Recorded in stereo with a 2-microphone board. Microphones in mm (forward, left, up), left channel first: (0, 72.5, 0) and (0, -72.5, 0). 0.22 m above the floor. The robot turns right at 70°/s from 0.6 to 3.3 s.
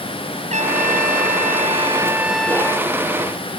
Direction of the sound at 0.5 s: 125° right.